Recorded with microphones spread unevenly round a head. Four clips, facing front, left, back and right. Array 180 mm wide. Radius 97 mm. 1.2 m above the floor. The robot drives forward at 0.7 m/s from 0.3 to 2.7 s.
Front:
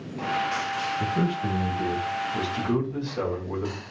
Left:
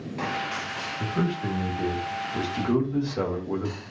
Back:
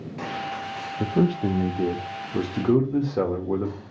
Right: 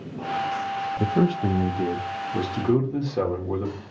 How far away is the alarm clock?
No alarm clock in this recording.